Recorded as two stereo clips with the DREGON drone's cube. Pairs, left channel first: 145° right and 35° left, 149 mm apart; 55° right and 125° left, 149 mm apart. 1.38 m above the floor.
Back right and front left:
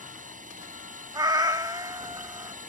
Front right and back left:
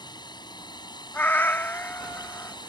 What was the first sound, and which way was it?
A drone, 5° left.